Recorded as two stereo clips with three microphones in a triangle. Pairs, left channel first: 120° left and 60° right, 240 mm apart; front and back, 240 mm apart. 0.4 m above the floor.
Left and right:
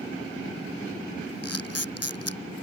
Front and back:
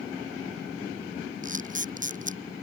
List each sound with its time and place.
1.4 s a camera shutter: 125° left